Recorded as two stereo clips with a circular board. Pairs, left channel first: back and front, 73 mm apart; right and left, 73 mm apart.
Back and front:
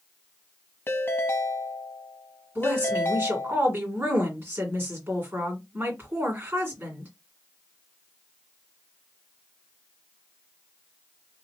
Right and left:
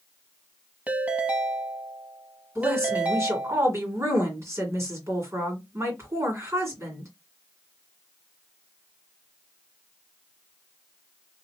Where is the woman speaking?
55° left, 2 m.